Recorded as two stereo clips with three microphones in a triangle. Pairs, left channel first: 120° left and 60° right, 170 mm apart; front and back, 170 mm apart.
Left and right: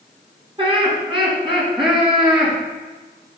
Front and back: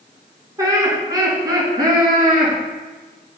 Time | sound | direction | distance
0.6 | laughter | 110° right | 3 m